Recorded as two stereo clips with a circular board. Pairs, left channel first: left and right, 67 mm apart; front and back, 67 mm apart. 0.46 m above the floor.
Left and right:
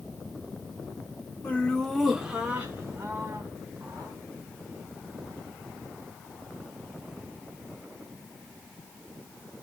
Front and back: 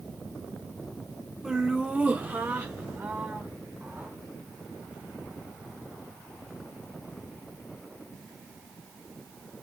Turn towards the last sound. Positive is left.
turn(degrees=-125)